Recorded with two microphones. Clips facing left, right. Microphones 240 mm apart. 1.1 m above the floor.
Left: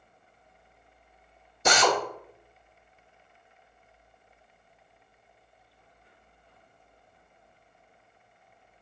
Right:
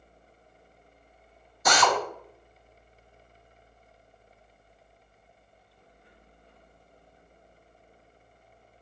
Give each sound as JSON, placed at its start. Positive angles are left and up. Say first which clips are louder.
{"t": 1.6, "sound": "a drill", "louder": "left 1 dB", "side_deg": 25, "distance_m": 0.8}